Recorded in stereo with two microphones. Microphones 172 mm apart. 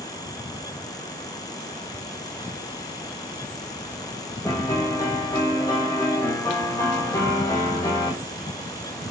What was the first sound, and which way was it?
A piano, 20° left (ahead or behind).